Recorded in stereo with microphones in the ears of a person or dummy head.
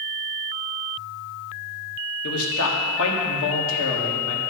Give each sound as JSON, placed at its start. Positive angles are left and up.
{"t": 2.2, "sound": "a man speaking", "side_deg": 75, "distance_m": 1.7}